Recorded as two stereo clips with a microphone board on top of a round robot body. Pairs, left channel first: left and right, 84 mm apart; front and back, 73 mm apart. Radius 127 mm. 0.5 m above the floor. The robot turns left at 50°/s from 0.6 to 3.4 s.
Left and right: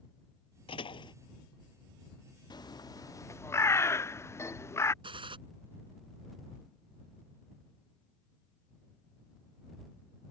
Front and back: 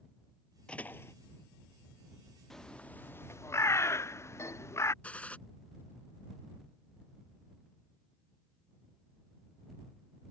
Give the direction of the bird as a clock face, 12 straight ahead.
9 o'clock.